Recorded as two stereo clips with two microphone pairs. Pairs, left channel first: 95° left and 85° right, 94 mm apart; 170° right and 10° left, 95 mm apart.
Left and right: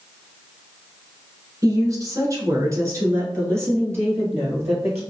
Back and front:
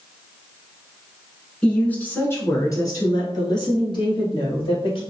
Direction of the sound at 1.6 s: 95° right.